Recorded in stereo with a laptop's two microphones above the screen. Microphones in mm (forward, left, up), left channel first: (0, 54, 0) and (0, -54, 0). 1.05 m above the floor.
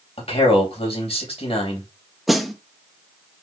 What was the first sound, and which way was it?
A man speaking, 65° left (ahead or behind).